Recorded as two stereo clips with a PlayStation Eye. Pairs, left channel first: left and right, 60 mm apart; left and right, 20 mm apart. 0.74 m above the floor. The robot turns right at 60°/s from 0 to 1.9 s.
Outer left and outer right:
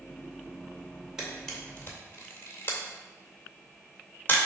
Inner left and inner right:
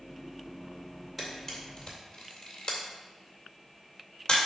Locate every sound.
1.2 s a camera shutter: 10° right (ahead or behind), 2.5 m; by 4.4 s 35° left (ahead or behind), 2.5 m